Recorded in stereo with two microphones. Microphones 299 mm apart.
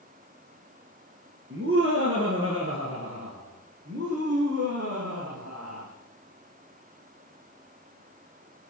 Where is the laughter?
45° right (ahead or behind), 2.0 m; by 5.9 s 50° right (ahead or behind), 3.5 m.